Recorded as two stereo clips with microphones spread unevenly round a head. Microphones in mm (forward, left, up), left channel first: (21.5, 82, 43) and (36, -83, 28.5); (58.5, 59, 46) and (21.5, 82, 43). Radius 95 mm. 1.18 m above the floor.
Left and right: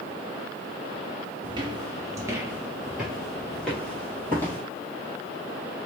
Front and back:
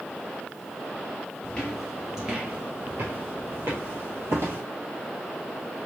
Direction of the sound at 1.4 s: 65° right.